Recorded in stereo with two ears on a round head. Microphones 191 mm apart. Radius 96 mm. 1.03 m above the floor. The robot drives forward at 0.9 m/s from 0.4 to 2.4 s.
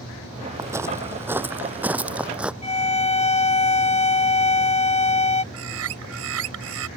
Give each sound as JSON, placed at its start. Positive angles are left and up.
{"t": 0.6, "sound": "footsteps", "side_deg": -15}
{"t": 2.6, "sound": "a violin", "side_deg": 30}
{"t": 5.5, "sound": "a bird", "side_deg": -70}